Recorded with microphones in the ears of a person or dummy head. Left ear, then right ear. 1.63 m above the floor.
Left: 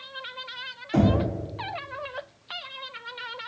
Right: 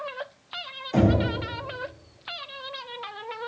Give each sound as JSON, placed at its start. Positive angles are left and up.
{"t": 0.9, "sound": "knocking", "side_deg": -20, "distance_m": 1.5}